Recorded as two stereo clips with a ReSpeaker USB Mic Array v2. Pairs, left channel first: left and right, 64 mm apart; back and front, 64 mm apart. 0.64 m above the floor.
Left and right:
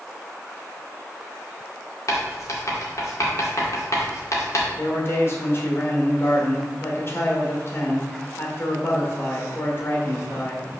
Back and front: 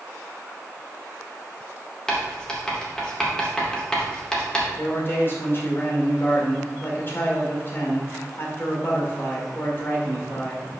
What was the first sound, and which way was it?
Writing, 105° left.